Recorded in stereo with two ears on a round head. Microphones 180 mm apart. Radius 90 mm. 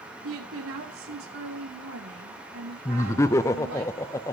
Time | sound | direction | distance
0.2 | a woman speaking | 80° right | 2.5 m
2.9 | laughter | 15° left (ahead or behind) | 0.6 m